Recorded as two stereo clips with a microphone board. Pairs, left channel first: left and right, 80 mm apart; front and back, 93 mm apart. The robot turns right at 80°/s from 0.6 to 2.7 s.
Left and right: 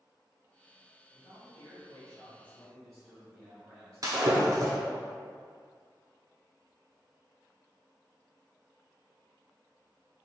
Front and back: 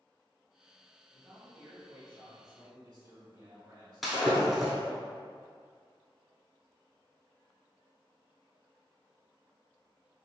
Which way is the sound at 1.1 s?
55° left.